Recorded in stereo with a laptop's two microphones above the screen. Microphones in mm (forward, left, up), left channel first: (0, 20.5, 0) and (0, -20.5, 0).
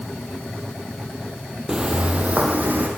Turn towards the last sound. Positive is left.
turn(degrees=-50)  # may be behind; listen again after turning